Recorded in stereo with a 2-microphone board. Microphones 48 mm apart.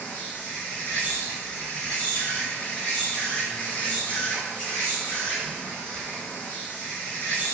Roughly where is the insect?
Left.